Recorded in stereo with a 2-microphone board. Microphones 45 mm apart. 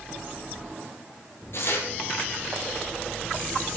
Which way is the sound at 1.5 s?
60° left (ahead or behind).